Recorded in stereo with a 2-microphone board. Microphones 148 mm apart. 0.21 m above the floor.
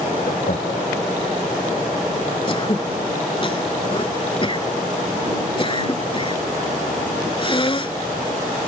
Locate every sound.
0.3 s laughter: 75° left (ahead or behind)
2.5 s throat clearing: 35° left (ahead or behind)